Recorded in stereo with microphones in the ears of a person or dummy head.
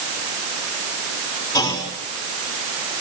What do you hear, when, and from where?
1.5 s a clunk: 20° left (ahead or behind), 4 m